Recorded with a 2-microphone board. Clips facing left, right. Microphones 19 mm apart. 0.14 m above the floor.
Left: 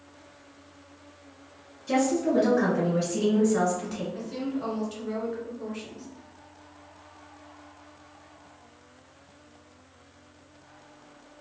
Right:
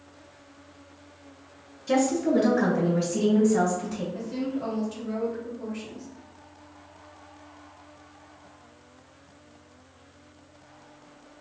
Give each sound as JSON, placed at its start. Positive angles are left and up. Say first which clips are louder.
{"t": 1.9, "sound": "a woman speaking", "louder": "right 1 dB", "side_deg": -10, "distance_m": 1.3}
{"t": 4.1, "sound": "a woman speaking", "louder": "right 1 dB", "side_deg": 35, "distance_m": 1.9}